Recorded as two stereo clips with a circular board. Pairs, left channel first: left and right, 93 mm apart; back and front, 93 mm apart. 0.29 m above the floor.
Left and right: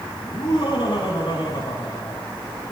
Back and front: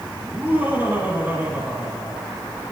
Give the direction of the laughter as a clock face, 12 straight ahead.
10 o'clock.